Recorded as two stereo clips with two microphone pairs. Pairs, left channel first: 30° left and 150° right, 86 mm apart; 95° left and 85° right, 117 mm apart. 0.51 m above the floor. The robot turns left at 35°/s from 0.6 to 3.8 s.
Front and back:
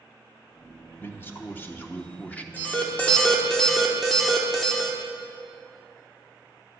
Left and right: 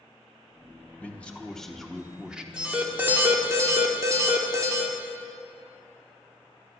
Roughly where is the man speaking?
Ahead left.